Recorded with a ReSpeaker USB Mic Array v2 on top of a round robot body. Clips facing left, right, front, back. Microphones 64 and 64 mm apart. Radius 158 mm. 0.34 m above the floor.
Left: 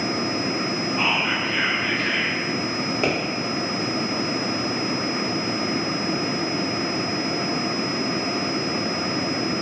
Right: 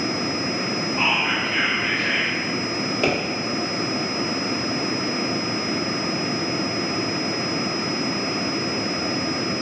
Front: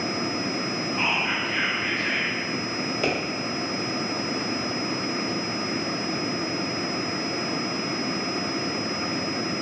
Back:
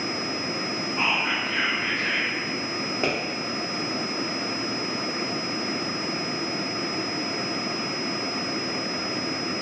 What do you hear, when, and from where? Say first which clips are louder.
1.0 s whispering: right 1 dB, back 1 dB; 145° right, 1.3 m
3.0 s a pop: right 2 dB, even; 150° left, 1.3 m